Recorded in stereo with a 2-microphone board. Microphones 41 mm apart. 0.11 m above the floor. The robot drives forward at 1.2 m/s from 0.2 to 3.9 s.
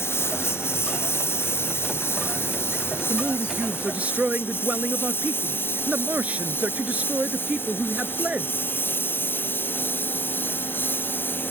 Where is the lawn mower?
85° left; by 11.5 s 60° left (ahead or behind).